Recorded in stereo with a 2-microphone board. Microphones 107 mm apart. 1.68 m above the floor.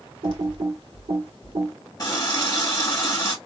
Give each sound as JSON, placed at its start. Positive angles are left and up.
{"t": 0.2, "sound": "typing on a keyboard", "side_deg": -65, "distance_m": 1.8}
{"t": 2.0, "sound": "a running tap", "side_deg": 35, "distance_m": 1.2}